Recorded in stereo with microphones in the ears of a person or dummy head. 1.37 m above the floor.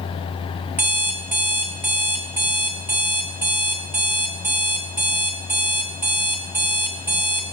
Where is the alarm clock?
10° right (ahead or behind), 1.4 m.